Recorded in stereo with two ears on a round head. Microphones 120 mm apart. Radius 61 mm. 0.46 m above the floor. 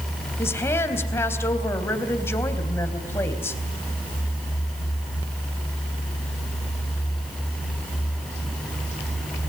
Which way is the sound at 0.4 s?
20° left (ahead or behind).